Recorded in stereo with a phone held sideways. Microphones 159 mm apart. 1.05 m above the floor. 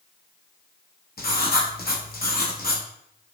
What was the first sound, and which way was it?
Writing, 65° left (ahead or behind).